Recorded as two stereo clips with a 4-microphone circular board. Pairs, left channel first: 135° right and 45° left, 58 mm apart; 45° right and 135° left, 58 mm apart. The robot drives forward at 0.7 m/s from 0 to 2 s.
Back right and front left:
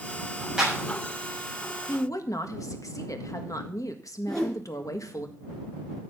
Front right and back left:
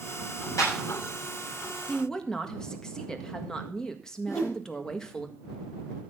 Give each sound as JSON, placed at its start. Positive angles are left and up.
{"t": 0.6, "sound": "a clap", "azimuth_deg": -35, "distance_m": 6.5}
{"t": 1.9, "sound": "a woman speaking", "azimuth_deg": -120, "distance_m": 1.6}
{"t": 4.3, "sound": "a whoosh", "azimuth_deg": -55, "distance_m": 3.0}